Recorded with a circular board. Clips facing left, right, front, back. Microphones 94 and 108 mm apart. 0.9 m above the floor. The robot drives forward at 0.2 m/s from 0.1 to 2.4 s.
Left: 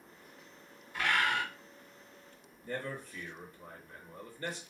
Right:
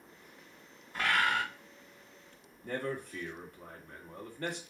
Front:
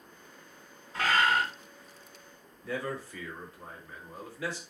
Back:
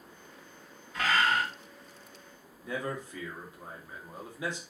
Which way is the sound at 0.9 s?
45° right.